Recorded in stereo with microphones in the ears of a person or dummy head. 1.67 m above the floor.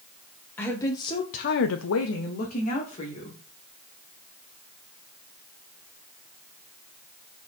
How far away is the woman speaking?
About 1.6 m.